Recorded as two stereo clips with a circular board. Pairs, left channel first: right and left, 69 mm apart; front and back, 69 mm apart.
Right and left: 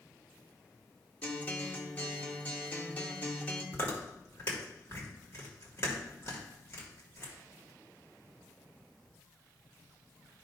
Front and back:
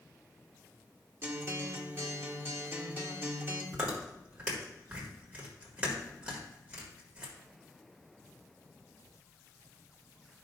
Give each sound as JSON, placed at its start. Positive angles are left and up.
{"t": 1.2, "sound": "a guitar", "azimuth_deg": -140, "distance_m": 1.4}
{"t": 3.7, "sound": "chewing", "azimuth_deg": -115, "distance_m": 1.8}